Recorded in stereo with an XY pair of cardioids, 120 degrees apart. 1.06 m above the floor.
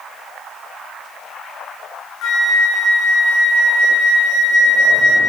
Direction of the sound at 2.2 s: 60° left.